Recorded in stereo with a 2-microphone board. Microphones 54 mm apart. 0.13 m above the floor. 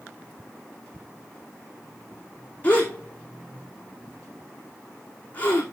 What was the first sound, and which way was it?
A gasp, 25° left (ahead or behind).